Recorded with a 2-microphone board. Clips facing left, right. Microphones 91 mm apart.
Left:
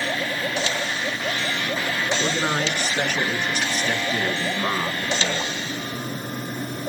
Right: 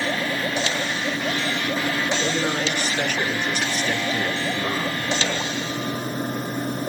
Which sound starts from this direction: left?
A man speaking, at 2.2 s.